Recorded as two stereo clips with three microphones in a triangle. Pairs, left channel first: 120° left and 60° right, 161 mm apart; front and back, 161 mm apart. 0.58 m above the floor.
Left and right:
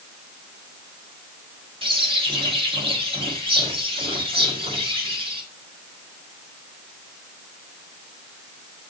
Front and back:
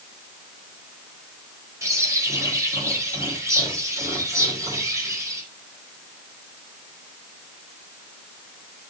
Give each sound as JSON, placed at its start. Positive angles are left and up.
{"t": 1.8, "sound": "a bird", "azimuth_deg": -110, "distance_m": 2.5}